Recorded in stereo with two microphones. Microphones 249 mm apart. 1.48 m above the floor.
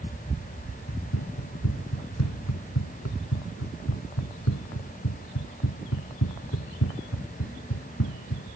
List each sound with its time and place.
0.9 s running footsteps: 85° left; by 8.5 s 80° left